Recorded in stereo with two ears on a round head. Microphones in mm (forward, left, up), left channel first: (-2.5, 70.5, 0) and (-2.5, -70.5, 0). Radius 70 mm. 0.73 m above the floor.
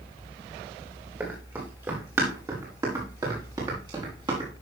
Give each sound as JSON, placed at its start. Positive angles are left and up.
{"t": 1.2, "sound": "running footsteps", "side_deg": -15, "distance_m": 5.5}